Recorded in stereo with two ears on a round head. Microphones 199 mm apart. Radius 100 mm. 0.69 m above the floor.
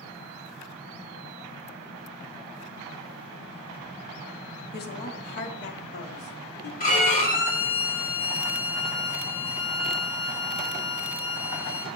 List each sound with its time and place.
4.7 s a woman speaking: 45° left (ahead or behind), 1.1 m; by 6.7 s 50° left (ahead or behind), 2 m
6.8 s a violin: 40° left (ahead or behind), 2.5 m